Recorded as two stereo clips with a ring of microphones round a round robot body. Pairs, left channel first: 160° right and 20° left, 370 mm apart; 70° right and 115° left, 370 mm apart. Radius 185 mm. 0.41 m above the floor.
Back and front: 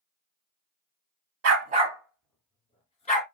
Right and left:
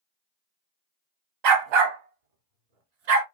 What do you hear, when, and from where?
1.4 s a dog barking: 80° left, 0.8 m; by 3.2 s 130° left, 1.9 m